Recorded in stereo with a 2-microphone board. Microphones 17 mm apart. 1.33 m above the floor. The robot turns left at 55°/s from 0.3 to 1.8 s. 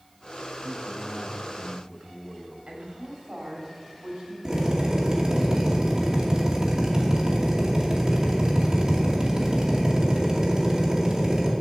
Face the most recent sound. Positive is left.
turn(degrees=-40)  # may be behind; listen again after turning